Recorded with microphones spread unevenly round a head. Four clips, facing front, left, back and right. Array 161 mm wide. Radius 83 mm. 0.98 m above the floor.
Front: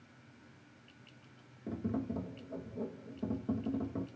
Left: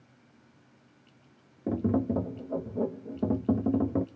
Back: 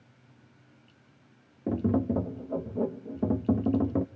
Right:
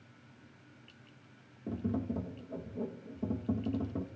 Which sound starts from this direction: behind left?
Tapping, at 1.7 s.